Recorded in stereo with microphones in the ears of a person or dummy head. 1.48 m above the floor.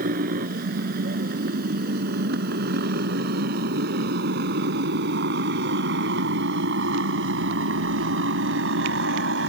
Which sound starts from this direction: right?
A motorcycle, at 0.0 s.